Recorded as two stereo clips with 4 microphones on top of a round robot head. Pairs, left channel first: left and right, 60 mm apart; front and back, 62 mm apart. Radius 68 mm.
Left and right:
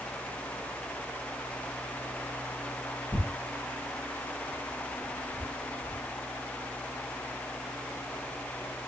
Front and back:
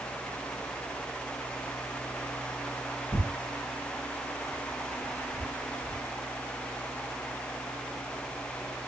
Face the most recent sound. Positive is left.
turn(degrees=35)